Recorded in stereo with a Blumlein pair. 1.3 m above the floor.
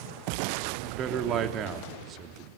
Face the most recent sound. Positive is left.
turn(degrees=-30)